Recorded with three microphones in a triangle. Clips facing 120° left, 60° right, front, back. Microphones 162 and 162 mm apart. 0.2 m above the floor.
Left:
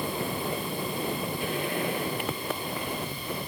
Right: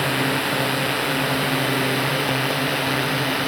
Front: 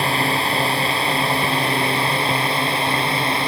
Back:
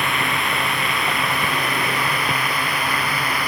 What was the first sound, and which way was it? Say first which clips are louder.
A drone: right 8 dB, front 3 dB; 60° right.